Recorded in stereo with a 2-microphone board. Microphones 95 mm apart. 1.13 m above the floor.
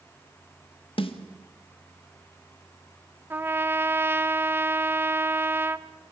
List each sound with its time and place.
1.0 s a snare drum: 70° left (ahead or behind), 1.7 m
3.3 s a trumpet: 20° right (ahead or behind), 0.7 m